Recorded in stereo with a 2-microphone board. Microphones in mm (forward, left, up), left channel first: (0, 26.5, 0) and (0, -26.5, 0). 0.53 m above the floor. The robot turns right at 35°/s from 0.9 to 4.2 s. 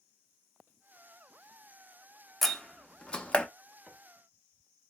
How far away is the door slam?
About 0.5 m.